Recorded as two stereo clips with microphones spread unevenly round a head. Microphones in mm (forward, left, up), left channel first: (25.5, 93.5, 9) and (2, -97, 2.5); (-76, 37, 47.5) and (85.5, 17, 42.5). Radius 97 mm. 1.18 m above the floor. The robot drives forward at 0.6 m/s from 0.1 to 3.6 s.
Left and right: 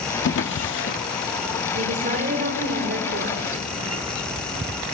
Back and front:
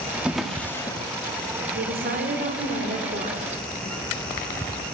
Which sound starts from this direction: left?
A drawer, at 0.2 s.